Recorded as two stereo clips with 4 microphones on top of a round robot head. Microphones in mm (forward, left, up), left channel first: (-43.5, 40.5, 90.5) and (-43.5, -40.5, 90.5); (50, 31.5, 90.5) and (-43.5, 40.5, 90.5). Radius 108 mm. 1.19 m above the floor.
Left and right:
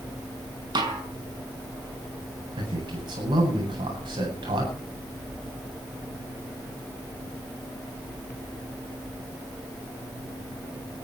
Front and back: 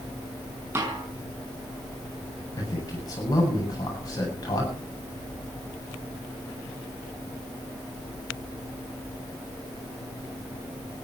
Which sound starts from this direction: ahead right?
A man speaking, at 2.6 s.